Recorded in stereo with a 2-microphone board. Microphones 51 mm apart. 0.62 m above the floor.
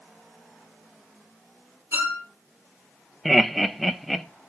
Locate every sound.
1.9 s a violin: 50° right (ahead or behind), 3 m
3.2 s laughter: centre (ahead or behind), 0.5 m